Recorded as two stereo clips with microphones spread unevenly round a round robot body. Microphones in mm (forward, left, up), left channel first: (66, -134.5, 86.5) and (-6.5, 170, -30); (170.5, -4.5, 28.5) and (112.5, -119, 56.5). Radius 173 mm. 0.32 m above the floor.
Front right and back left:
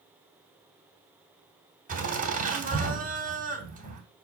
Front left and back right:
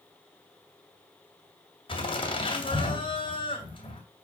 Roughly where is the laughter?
Ahead left.